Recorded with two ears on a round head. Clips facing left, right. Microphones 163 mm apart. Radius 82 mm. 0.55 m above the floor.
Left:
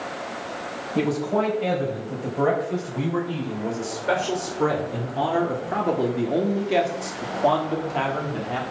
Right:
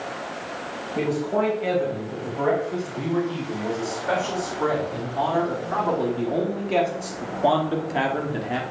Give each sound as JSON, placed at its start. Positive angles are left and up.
{"t": 0.9, "sound": "a man speaking", "side_deg": 45, "distance_m": 4.5}